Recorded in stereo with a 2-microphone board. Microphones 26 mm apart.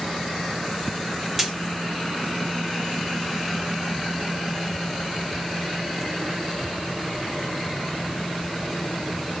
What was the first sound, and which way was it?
A dropped coin, 15° right (ahead or behind).